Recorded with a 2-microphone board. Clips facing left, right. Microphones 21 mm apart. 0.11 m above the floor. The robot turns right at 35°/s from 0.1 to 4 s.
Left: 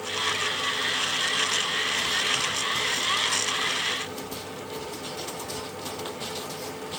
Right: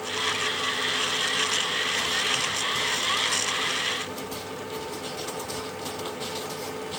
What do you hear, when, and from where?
Only background noise.